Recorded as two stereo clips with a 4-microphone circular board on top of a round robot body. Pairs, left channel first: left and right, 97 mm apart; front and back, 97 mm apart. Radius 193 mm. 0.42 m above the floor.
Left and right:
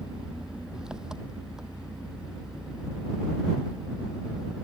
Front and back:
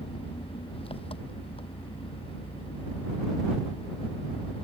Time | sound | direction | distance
0.0 | an engine running | 10° right | ?